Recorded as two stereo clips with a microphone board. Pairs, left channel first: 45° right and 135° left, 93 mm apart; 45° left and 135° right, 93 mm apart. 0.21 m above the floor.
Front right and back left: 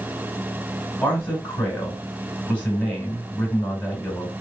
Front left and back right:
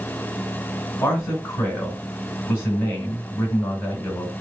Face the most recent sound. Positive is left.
turn(degrees=15)